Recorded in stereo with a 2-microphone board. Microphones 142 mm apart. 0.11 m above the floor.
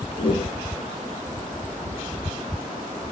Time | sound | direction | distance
0.1 | a whoosh | 35° left (ahead or behind) | 3.5 m